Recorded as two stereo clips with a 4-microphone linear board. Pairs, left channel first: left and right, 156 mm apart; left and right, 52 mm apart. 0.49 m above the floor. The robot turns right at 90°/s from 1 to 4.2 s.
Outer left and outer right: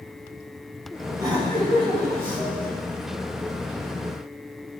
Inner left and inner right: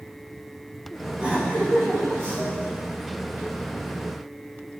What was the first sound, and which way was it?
Laughter, 160° right.